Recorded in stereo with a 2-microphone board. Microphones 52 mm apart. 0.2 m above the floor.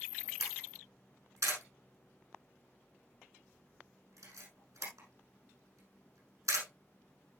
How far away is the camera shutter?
About 6 m.